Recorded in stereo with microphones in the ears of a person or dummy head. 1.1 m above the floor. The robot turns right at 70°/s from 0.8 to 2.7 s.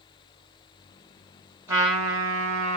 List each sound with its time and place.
1.7 s a trumpet: 170° right, 1.7 m; by 2.8 s 100° right, 1.7 m